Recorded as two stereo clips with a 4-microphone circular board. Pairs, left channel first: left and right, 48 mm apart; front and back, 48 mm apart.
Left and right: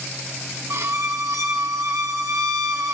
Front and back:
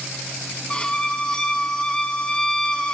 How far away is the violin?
About 0.5 m.